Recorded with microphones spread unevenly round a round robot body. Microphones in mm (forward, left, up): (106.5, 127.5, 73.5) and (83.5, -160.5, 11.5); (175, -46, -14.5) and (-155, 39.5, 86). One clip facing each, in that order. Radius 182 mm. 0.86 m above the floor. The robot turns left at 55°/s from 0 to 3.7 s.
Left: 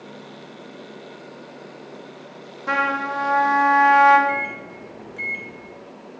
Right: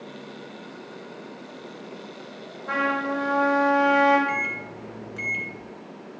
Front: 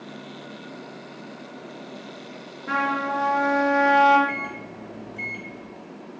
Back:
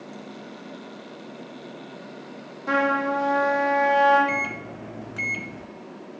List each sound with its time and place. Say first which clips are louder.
2.7 s a trumpet: right 1 dB, back 5 dB; 85° left, 2 m; by 4.2 s 30° left, 2 m
4.3 s a microwave: left 3 dB, back 3 dB; 130° right, 0.6 m